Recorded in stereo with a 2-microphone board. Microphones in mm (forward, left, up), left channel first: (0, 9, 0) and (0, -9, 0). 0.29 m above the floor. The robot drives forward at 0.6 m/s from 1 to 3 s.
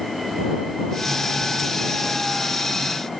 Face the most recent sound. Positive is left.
No sound to turn to.